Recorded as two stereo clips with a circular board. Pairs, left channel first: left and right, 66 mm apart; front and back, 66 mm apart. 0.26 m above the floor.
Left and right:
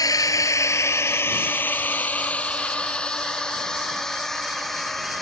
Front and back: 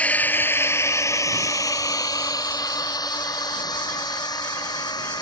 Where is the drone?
70° left; by 5.2 s 5° left.